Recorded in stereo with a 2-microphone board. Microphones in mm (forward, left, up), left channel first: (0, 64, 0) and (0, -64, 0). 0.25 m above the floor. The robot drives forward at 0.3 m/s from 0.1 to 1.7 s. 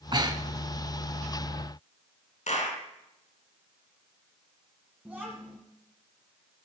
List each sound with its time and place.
0.1 s breathing: 35° right (ahead or behind), 0.9 m; by 0.6 s 30° right (ahead or behind), 1.0 m
2.5 s a clap: 65° left (ahead or behind), 2 m
5.0 s a child speaking: 10° right (ahead or behind), 1.4 m